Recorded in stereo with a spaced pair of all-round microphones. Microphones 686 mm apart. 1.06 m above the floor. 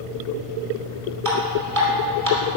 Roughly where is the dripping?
Right.